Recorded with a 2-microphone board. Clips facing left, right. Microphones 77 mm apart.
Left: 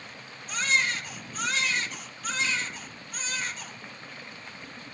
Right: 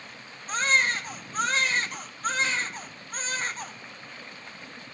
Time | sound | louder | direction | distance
0.5 | a baby crying | right 3 dB | 45° right (ahead or behind) | 1.8 m